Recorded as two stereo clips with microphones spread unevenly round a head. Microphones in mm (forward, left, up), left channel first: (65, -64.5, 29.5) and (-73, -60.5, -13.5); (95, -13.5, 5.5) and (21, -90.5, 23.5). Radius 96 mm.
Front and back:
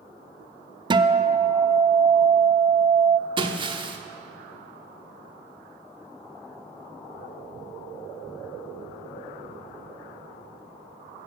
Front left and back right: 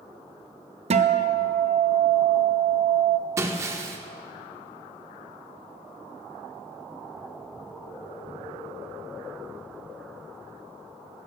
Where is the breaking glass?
125° right, 1.0 m.